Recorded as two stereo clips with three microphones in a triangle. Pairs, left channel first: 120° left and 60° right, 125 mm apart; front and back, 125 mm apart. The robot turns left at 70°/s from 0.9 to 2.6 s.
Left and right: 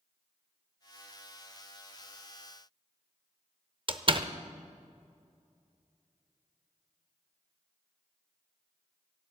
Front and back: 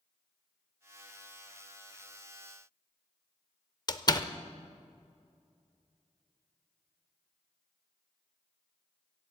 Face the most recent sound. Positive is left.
turn(degrees=-40)